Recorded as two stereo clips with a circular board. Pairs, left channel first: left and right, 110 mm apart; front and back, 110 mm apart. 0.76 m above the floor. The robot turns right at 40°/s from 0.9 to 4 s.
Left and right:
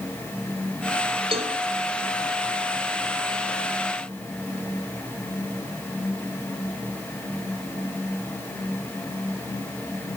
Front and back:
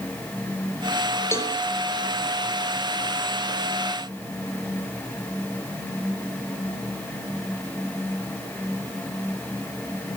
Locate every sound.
1.3 s a cowbell: 65° right, 1.8 m; by 1.6 s 50° right, 1.8 m